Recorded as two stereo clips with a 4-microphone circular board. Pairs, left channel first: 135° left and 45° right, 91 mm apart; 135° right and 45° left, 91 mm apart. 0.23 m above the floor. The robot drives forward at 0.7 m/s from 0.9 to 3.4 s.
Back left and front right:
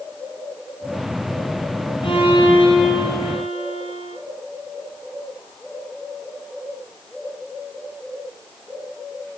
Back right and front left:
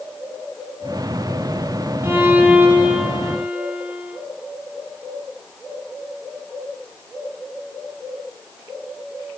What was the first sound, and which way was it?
A violin, 110° left.